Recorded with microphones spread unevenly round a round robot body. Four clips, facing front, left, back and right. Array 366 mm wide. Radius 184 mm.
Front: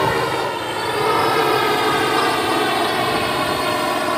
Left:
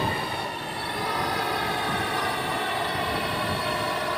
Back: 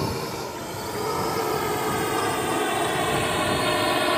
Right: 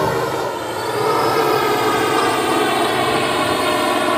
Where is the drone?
50° right; by 4.2 s 85° right.